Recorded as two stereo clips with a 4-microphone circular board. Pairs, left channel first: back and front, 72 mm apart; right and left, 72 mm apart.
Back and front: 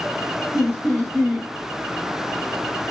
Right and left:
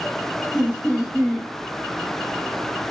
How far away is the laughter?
About 0.7 m.